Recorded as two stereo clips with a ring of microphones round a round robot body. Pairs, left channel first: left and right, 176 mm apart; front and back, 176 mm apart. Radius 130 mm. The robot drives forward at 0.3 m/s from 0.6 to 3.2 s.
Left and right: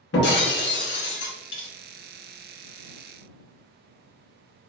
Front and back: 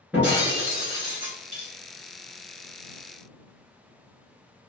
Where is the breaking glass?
95° left, 0.9 m; by 1.7 s 115° left, 1.0 m.